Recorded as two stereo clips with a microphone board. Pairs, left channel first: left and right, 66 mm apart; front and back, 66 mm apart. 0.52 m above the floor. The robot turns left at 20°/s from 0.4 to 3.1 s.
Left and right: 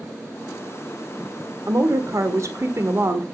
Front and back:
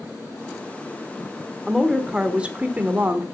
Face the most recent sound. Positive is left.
turn(degrees=-120)